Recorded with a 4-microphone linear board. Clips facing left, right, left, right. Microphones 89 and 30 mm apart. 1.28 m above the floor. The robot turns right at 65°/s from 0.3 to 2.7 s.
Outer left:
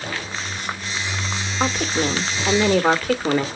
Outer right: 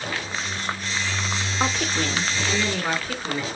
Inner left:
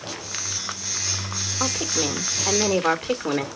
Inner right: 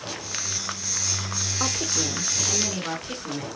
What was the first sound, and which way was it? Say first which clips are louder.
A woman speaking: outer left 4 dB, inner left 3 dB; 5° left.